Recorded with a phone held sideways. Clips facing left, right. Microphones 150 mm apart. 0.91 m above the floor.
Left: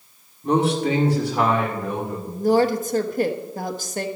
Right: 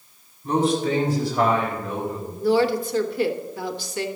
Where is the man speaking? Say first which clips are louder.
Left 1 dB; 70° left (ahead or behind), 2.5 m; by 2.2 s 80° left, 3.5 m.